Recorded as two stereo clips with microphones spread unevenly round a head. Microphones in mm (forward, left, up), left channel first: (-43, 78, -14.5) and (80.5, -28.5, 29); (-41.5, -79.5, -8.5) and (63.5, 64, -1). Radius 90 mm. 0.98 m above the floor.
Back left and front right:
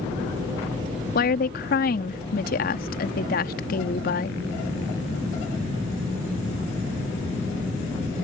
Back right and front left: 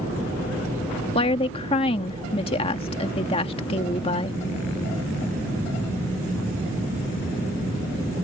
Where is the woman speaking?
170° left.